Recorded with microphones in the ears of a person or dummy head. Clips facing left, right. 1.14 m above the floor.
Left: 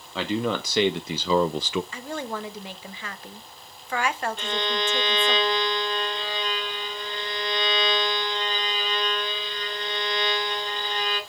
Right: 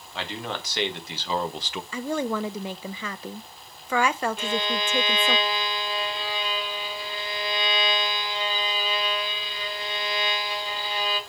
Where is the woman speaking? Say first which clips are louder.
Right 5 dB; 70° right (ahead or behind), 0.7 m.